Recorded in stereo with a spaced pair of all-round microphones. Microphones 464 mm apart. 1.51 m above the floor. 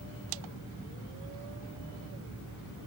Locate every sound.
Only background noise.